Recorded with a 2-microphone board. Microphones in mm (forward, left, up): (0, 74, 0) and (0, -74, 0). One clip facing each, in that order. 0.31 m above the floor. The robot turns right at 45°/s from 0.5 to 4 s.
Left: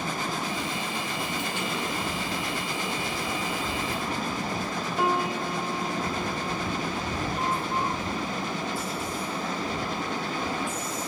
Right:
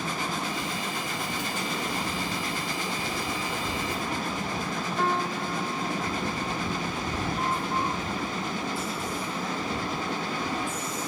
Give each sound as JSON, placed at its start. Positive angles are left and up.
{"t": 5.0, "sound": "a piano", "side_deg": 15}